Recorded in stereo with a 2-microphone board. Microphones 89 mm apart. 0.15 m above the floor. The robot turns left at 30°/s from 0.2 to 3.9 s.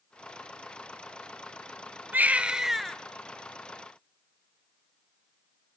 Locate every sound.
2.1 s a baby crying: 20° right (ahead or behind), 0.9 m; by 3.0 s 5° left (ahead or behind), 0.9 m